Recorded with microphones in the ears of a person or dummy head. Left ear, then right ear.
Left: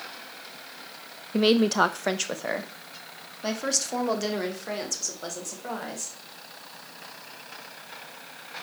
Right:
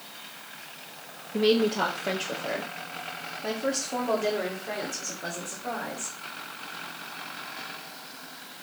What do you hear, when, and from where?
1.3 s a woman speaking: 30° left (ahead or behind), 0.5 m; by 6.2 s 75° left (ahead or behind), 4 m